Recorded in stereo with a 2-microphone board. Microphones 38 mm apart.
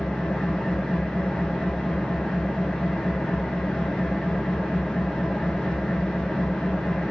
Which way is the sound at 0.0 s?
25° left (ahead or behind).